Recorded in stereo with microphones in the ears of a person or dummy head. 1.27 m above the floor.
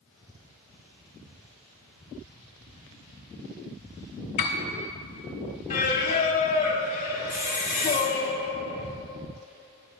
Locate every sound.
4.4 s a piano: 30° left (ahead or behind), 1.1 m
5.7 s singing: 30° left (ahead or behind), 0.9 m
7.3 s a hiss: 50° right (ahead or behind), 2.0 m